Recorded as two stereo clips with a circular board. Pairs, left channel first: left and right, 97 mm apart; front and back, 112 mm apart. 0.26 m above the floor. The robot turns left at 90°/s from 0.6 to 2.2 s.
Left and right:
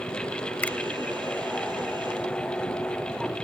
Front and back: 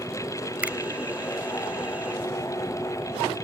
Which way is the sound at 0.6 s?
130° left.